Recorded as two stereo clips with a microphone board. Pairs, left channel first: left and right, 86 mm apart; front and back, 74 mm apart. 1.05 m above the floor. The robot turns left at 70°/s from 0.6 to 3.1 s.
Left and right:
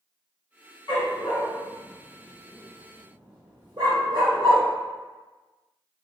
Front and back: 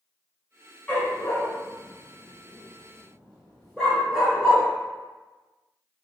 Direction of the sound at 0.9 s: 75° left.